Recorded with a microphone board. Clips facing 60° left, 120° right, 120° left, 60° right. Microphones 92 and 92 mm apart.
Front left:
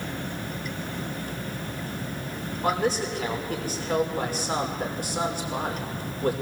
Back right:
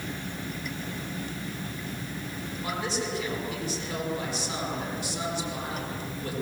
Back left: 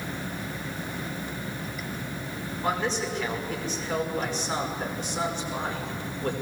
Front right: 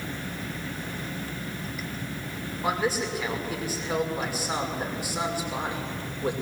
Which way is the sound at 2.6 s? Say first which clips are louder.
Front left 7 dB, front right 1 dB; 20° left.